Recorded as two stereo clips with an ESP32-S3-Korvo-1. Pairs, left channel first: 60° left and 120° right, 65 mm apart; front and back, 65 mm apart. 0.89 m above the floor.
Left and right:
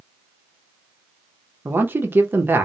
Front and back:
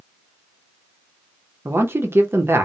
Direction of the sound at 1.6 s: 155° right.